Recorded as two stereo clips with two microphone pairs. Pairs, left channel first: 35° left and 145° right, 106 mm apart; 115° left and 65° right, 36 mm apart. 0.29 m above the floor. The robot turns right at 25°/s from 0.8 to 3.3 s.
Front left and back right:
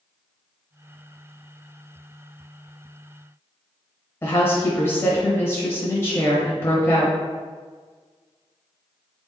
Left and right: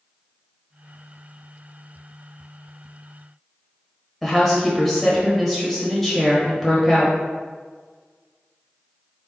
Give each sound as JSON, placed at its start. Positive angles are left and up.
{"t": 4.2, "sound": "a woman speaking", "azimuth_deg": 45, "distance_m": 0.9}